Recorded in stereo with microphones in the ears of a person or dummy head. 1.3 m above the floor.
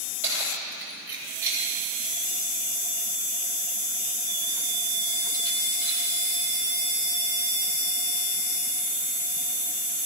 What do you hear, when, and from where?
0.2 s keys jangling: 10° right (ahead or behind), 4 m; by 6.1 s 60° right (ahead or behind), 2.0 m